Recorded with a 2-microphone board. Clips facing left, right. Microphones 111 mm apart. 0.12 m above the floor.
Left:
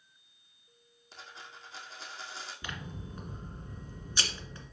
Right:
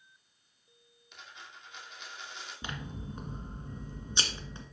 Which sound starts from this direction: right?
Scissors, at 2.6 s.